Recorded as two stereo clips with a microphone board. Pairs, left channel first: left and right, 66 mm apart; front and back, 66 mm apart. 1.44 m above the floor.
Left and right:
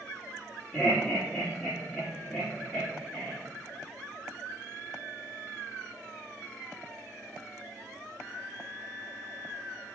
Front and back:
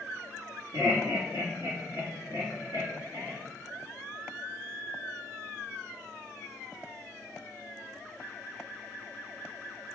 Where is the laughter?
160° left, 1.7 m.